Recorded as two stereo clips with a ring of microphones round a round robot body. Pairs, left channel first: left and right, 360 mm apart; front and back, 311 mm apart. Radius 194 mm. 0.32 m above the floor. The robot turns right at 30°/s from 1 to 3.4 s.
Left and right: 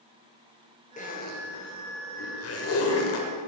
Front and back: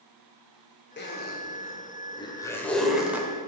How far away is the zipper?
About 1.6 m.